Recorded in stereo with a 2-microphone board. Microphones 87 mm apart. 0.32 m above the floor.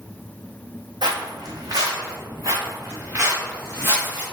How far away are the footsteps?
About 0.9 m.